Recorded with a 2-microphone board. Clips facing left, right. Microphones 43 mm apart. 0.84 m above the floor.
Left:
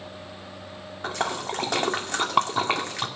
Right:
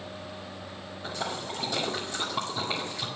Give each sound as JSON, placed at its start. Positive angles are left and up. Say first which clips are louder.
{"t": 1.0, "sound": "a splash", "louder": "left 6 dB", "side_deg": 70, "distance_m": 2.0}